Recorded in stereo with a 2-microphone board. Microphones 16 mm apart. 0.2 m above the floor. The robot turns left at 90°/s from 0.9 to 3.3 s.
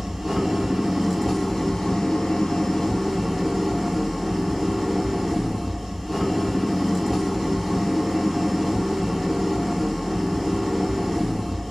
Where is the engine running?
135° right, 3 m; by 11.7 s 10° left, 3 m.